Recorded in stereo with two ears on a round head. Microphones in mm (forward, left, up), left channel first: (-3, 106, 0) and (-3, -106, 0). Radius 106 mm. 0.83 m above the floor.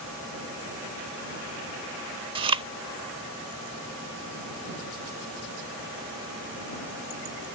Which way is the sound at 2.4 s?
20° right (ahead or behind).